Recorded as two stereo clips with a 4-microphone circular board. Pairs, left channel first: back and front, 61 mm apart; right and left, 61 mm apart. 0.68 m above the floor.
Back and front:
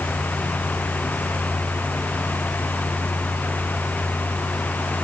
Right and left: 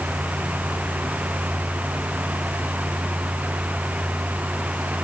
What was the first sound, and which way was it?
Only background noise.